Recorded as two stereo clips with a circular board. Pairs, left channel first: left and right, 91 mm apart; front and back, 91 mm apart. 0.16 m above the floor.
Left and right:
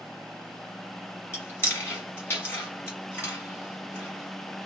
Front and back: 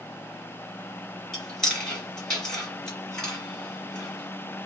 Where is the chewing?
75° left, 1.6 m.